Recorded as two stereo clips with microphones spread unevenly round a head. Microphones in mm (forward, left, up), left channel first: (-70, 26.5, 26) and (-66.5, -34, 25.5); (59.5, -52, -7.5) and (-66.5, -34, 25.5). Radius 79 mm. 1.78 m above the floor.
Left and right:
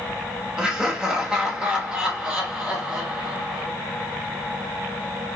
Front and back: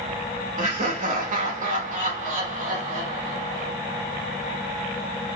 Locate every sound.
0.6 s laughter: 165° right, 1.1 m